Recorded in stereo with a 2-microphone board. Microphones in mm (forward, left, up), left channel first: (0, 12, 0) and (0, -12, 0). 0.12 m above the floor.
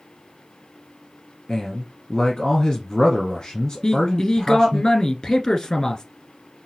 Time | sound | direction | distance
1.5 | a man speaking | 25° left (ahead or behind) | 1.4 m
3.8 | a man speaking | 30° left (ahead or behind) | 1.4 m